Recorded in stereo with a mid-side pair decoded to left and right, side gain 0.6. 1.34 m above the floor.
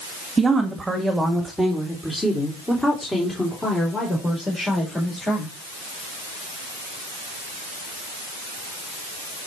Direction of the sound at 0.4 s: 25° right.